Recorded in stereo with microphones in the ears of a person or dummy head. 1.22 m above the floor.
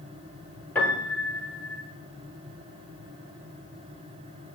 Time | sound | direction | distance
0.8 | a piano | 10° left (ahead or behind) | 1.3 m